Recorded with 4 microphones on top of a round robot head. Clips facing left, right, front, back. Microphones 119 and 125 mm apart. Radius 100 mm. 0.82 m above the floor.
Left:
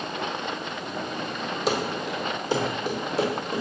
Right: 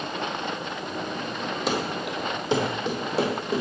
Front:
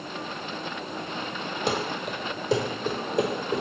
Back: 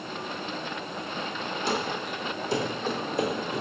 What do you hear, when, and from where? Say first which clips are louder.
1.7 s running footsteps: left 2 dB, front 2 dB; straight ahead, 1.1 m; by 3.6 s 40° right, 1.8 m